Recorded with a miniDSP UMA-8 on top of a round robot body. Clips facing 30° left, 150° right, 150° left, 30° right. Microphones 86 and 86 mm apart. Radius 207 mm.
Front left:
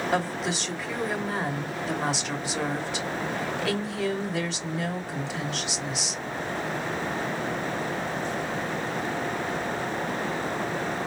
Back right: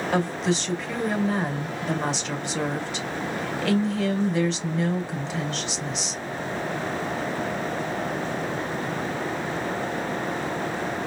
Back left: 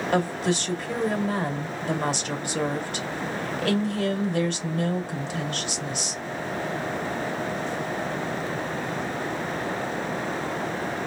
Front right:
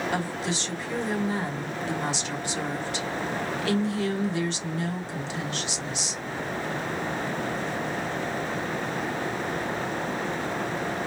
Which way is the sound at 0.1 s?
115° left.